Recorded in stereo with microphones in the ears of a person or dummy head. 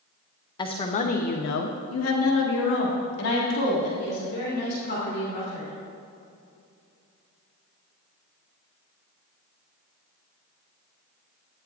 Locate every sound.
0.6 s a woman speaking: 25° left (ahead or behind), 1.0 m; by 5.7 s 50° left (ahead or behind), 3.5 m